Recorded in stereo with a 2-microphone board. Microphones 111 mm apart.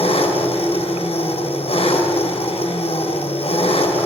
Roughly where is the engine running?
Left.